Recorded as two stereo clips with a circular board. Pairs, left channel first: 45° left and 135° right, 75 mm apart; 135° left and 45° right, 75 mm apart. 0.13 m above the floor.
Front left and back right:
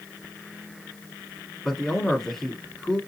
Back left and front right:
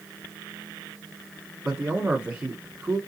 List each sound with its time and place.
1.6 s a man speaking: 25° right, 1.0 m